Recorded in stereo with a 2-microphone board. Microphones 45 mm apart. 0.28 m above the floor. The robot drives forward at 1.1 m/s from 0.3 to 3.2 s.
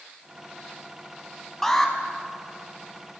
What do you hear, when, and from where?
1.6 s an alarm: 10° left (ahead or behind), 1.3 m